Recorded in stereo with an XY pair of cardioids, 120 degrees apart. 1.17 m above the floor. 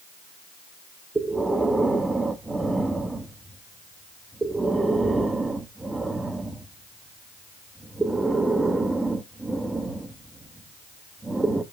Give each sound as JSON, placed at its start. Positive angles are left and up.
{"t": 1.1, "sound": "breathing", "azimuth_deg": -15, "distance_m": 1.1}